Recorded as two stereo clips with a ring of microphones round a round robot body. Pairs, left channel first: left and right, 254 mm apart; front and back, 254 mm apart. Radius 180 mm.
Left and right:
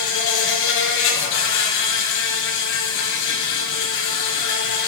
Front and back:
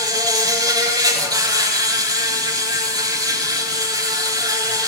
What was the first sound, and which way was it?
An insect, 105° left.